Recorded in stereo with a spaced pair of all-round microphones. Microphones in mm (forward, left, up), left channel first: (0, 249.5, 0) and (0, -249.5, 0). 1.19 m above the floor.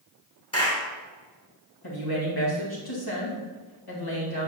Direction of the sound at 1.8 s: 45° left (ahead or behind).